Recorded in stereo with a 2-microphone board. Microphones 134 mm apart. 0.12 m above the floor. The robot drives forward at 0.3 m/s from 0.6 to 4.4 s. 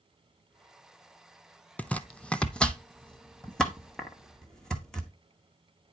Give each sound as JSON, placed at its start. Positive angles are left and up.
{"t": 1.8, "sound": "chopping", "side_deg": 10, "distance_m": 0.5}